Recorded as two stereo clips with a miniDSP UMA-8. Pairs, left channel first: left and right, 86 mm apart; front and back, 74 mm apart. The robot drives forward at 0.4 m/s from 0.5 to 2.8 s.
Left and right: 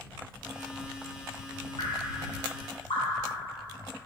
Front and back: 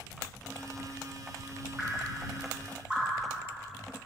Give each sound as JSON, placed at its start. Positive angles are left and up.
{"t": 1.8, "sound": "dripping", "azimuth_deg": 95, "distance_m": 3.0}